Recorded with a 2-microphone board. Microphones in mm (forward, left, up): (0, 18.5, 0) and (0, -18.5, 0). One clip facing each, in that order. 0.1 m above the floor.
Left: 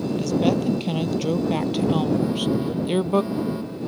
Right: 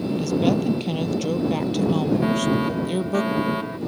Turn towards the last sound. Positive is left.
turn(degrees=-65)  # may be behind; listen again after turning